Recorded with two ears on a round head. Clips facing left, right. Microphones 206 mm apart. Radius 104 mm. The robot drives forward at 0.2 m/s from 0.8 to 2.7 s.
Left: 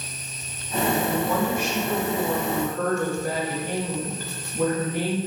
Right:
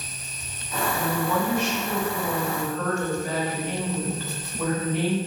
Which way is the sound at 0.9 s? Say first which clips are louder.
Even; 45° left (ahead or behind).